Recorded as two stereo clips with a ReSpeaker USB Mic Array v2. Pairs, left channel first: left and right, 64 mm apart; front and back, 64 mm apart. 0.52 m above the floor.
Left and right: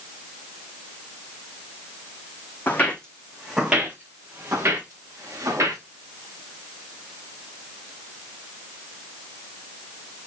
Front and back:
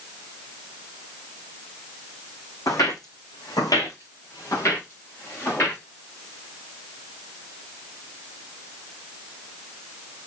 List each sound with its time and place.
2.7 s footsteps: 30° left, 2 m; by 5.8 s 55° right, 4.5 m